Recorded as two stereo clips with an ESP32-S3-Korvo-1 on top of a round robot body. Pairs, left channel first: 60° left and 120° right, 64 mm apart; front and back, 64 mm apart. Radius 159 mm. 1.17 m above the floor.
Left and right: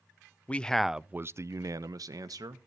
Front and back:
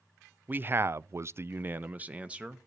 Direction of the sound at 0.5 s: 125° left.